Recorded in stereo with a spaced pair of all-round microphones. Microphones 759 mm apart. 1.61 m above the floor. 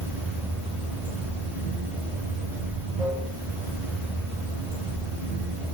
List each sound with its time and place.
0.0 s running water: centre (ahead or behind), 2.5 m